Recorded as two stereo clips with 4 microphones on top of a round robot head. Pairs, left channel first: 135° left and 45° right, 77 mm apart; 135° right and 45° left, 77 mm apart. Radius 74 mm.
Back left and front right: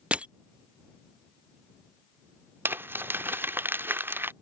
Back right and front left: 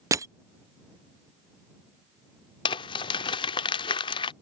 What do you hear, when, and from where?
0.1 s crushing: 25° left
2.6 s crumpling: 110° right